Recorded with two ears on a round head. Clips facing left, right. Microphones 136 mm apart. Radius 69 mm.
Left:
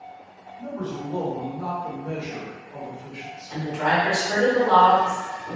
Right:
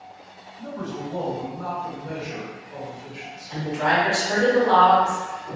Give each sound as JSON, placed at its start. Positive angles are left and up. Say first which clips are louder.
{"t": 0.6, "sound": "a man speaking", "louder": "left 1 dB", "side_deg": 35, "distance_m": 1.5}
{"t": 3.5, "sound": "a woman speaking", "louder": "right 1 dB", "side_deg": -5, "distance_m": 1.2}